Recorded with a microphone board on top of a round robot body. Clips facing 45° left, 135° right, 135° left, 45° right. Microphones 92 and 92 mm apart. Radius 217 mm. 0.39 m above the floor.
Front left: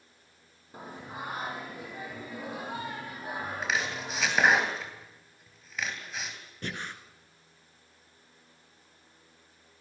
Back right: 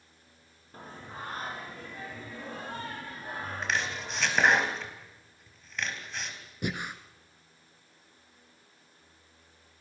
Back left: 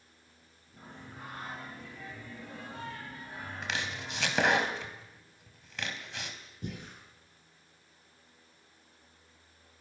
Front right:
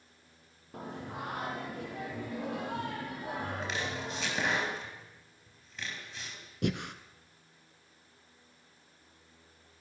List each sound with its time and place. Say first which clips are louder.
0.7 s singing: front left 2 dB, front right 8 dB; 35° right, 4 m
3.6 s chopping: even, front right 1 dB; 130° left, 3.5 m
6.6 s breathing: back right 4 dB, front right 10 dB; 55° right, 1.3 m